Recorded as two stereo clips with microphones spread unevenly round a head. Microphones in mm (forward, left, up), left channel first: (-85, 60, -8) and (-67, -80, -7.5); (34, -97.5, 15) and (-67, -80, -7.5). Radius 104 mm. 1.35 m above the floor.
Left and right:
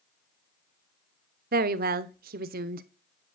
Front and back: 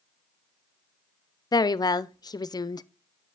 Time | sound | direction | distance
1.5 | a woman speaking | 65° right | 0.7 m